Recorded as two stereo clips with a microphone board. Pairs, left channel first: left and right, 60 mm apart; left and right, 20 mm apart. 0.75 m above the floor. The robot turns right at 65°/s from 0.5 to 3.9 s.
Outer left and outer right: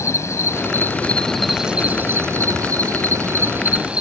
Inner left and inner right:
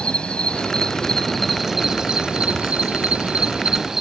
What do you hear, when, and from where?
0.0 s an insect: 115° left; by 4.0 s 20° right